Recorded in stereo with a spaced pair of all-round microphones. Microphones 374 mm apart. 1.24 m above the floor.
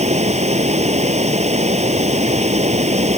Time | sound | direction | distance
0.0 | running water | 20° right (ahead or behind) | ?